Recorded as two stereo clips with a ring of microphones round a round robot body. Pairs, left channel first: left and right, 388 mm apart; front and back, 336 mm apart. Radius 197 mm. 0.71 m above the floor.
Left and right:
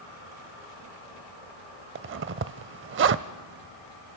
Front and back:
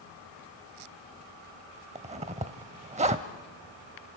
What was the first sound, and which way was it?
A zipper, 120° right.